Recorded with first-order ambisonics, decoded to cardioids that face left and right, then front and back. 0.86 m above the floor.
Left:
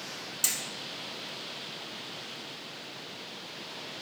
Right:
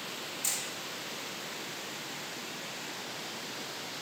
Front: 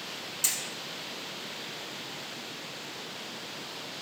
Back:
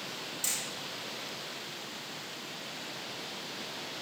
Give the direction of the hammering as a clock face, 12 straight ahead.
10 o'clock.